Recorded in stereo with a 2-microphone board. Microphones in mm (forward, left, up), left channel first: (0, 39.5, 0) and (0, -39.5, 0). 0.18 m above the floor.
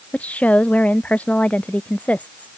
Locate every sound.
0.1 s a woman speaking: 15° left (ahead or behind)